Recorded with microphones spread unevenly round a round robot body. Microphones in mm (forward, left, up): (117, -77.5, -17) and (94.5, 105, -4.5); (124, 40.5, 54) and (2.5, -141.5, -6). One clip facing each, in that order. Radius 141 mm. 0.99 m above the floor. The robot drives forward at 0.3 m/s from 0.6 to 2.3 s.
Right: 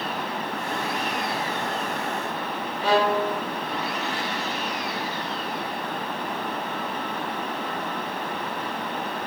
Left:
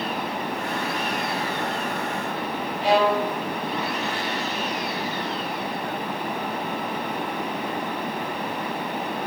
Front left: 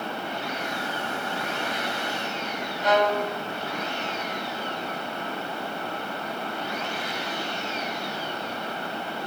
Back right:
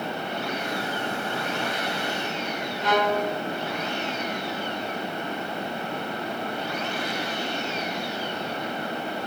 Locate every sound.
2.8 s a violin: 140° right, 2.0 m